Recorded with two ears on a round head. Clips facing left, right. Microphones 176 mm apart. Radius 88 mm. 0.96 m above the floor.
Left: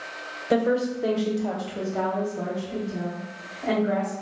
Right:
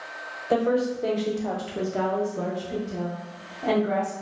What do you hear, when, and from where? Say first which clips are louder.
0.5 s a woman speaking: even; 20° left (ahead or behind), 0.8 m; by 4.1 s 35° right (ahead or behind), 1.4 m